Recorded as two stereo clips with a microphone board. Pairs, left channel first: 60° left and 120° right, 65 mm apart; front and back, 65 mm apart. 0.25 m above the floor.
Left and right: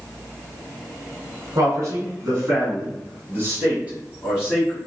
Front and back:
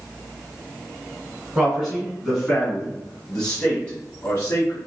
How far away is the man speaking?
About 2 m.